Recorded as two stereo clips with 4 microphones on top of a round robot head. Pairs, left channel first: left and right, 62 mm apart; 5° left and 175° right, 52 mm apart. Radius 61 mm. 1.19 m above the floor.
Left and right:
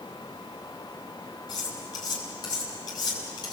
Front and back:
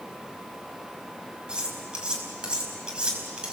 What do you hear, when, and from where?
1.5 s cutlery clinking: 110° left, 5 m